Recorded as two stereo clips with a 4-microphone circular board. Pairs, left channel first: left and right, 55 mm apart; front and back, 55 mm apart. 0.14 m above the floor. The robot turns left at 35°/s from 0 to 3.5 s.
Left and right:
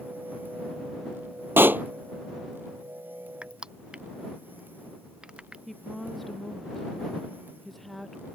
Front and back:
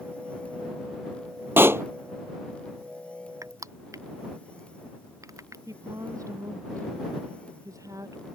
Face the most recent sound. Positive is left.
turn(degrees=175)